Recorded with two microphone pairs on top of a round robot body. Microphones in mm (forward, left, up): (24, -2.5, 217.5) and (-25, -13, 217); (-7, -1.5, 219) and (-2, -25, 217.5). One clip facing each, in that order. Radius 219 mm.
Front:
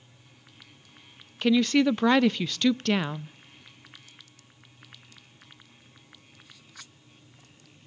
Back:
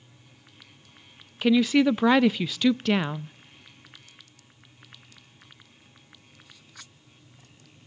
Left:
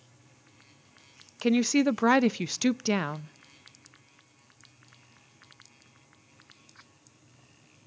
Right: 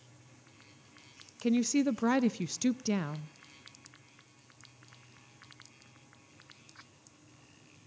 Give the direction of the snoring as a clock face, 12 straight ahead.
No snoring in this recording.